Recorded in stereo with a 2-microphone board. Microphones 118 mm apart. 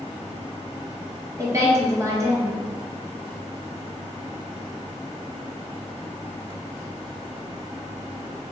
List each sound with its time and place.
1.4 s a woman speaking: 25° right (ahead or behind), 1.2 m